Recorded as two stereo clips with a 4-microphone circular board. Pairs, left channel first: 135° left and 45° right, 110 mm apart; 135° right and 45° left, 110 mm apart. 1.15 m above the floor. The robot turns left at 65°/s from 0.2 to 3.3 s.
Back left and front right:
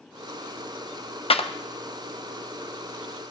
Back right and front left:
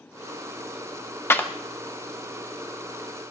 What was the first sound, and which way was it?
A clap, 160° left.